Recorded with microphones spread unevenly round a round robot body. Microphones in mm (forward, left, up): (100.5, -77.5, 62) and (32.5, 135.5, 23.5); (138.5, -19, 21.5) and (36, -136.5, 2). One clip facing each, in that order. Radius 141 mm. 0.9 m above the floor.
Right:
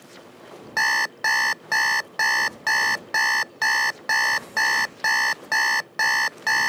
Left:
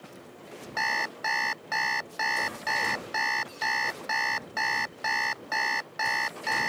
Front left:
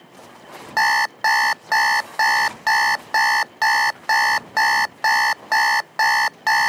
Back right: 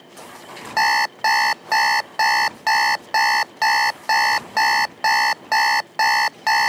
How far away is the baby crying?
No baby crying in this recording.